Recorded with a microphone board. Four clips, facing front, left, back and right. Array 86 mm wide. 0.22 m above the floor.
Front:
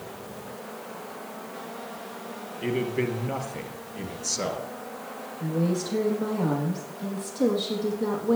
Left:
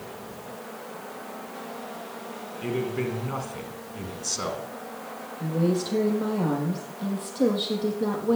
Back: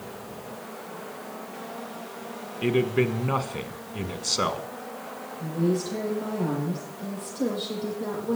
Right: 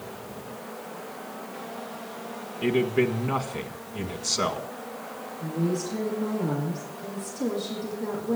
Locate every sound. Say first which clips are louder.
2.6 s a man speaking: right 5 dB, back 4 dB; 155° right, 1.6 m
5.4 s a woman speaking: left 3 dB, back 1 dB; 90° left, 7 m